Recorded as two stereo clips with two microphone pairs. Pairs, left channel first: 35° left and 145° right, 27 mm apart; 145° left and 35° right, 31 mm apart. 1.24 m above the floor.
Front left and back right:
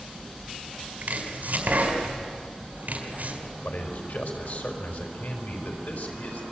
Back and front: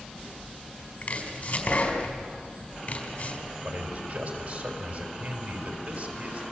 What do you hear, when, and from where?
1.0 s chopping: 175° right, 4 m
3.6 s a man speaking: 20° left, 5 m